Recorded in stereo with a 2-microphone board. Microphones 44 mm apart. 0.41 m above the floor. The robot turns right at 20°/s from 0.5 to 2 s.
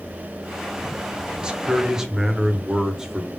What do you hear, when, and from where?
1.4 s a man speaking: 20° right (ahead or behind), 0.8 m; by 3.3 s 10° right (ahead or behind), 0.8 m